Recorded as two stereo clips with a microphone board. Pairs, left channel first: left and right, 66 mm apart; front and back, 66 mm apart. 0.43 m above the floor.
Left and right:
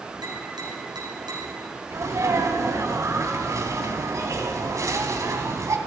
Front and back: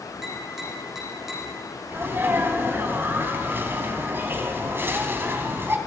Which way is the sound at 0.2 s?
95° right.